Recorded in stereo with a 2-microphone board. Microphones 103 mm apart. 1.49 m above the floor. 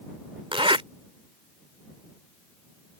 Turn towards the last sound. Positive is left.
turn(degrees=-65)  # may be behind; listen again after turning